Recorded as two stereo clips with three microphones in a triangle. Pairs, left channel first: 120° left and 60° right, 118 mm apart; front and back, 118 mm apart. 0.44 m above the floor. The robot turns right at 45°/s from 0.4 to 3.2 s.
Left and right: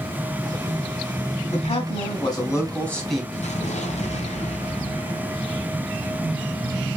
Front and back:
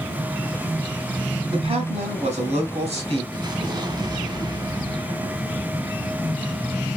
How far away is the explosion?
About 1.0 m.